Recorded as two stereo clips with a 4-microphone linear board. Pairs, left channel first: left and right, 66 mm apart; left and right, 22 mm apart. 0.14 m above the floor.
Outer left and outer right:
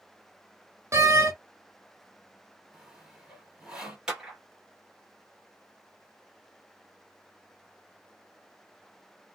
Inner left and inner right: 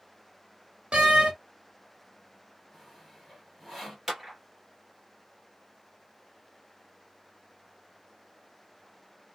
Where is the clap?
10° right (ahead or behind), 1.6 m.